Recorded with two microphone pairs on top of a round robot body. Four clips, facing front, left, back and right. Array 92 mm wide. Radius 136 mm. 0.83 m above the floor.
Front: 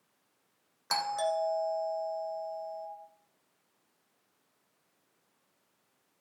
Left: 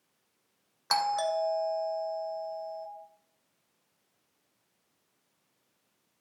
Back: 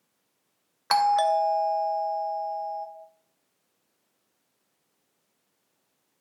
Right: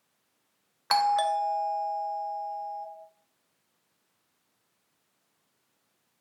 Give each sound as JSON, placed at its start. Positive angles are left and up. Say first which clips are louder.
{"t": 0.9, "sound": "a doorbell", "louder": "right 4 dB, back 10 dB", "azimuth_deg": -160, "distance_m": 0.9}